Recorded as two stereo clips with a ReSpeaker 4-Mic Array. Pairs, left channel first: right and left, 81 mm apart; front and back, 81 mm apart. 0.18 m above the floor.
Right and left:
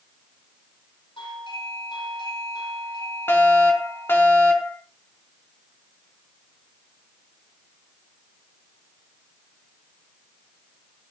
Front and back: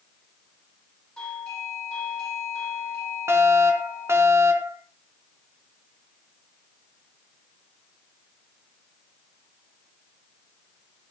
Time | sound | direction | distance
1.2 | a doorbell | 80° right | 8 m
3.3 | a fire alarm | 140° right | 3 m